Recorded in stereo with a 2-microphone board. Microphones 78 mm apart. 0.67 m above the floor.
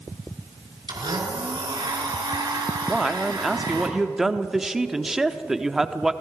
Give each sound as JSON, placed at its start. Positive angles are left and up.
{"t": 0.9, "sound": "a blender", "side_deg": -75, "distance_m": 3.5}
{"t": 2.9, "sound": "a man speaking", "side_deg": -5, "distance_m": 1.0}